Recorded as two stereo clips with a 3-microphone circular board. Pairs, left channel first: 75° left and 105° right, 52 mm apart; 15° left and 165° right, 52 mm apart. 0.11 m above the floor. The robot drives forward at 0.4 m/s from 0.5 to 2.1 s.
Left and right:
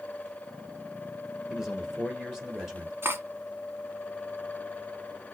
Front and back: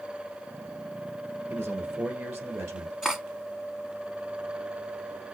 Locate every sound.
1.5 s a man speaking: 175° left, 1.5 m
3.0 s cutlery clinking: 90° right, 1.0 m